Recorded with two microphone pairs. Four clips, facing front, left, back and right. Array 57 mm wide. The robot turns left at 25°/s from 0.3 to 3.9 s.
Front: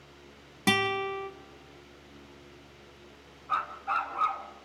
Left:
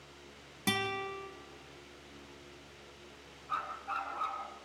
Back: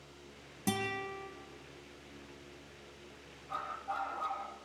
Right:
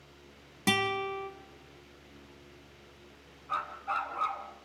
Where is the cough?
I don't hear a cough.